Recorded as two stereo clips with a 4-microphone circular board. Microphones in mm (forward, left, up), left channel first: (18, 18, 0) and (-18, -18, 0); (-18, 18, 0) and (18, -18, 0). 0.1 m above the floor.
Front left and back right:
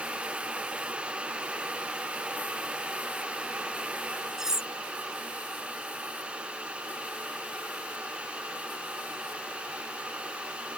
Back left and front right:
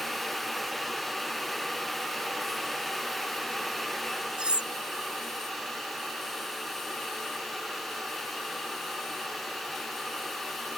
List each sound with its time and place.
4.4 s cutlery clinking: 75° right